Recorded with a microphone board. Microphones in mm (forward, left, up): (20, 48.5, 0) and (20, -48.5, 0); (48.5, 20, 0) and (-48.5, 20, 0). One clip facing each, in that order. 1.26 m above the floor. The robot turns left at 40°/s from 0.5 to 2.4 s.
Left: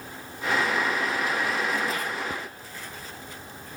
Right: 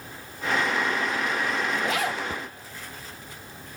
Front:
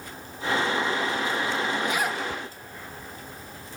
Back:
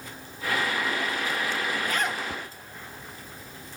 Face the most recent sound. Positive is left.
turn(degrees=-100)